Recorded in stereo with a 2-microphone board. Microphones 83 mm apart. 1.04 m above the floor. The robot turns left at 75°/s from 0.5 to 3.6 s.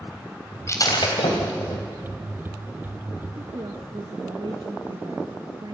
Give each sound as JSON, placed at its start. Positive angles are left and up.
{"t": 0.7, "sound": "breaking glass", "side_deg": 35, "distance_m": 3.0}
{"t": 3.4, "sound": "a woman speaking", "side_deg": -55, "distance_m": 1.3}